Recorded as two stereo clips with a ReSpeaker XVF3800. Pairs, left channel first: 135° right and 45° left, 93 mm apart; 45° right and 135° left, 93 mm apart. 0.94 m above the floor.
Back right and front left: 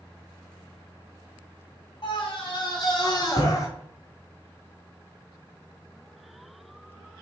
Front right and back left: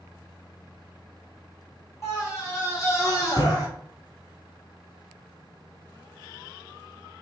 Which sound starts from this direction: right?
A scream, at 2.0 s.